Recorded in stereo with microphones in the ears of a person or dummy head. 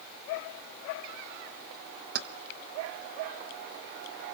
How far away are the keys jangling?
About 1.5 m.